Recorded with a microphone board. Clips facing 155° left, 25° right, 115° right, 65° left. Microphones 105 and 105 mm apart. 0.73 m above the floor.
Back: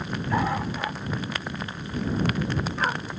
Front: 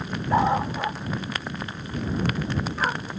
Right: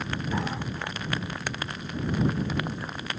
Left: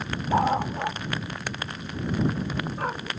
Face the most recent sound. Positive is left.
turn(degrees=65)